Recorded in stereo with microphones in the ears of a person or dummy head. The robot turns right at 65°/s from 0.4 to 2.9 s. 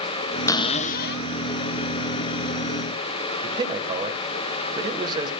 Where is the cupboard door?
20° left, 0.8 m; by 1.3 s 70° left, 0.8 m.